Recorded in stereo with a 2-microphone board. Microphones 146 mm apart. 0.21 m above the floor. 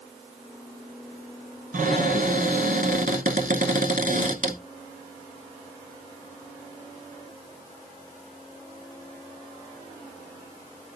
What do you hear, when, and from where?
1.7 s a cupboard door: 65° right (ahead or behind), 0.9 m